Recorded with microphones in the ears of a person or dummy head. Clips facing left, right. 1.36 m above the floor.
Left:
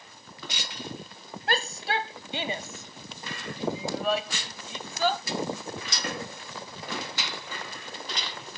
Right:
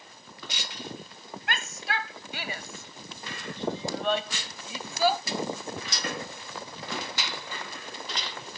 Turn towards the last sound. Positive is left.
turn(degrees=-10)  # may be behind; listen again after turning